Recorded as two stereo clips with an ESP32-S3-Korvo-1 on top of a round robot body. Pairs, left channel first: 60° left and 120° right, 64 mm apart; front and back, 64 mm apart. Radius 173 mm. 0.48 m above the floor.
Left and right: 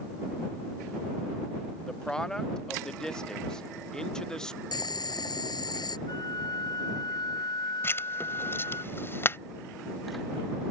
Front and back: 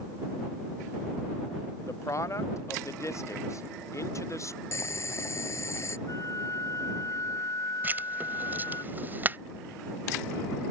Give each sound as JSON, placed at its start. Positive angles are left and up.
{"t": 1.8, "sound": "a man speaking", "azimuth_deg": -15}
{"t": 4.7, "sound": "boiling", "azimuth_deg": 45}
{"t": 6.1, "sound": "a flute", "azimuth_deg": 40}
{"t": 7.8, "sound": "writing", "azimuth_deg": 115}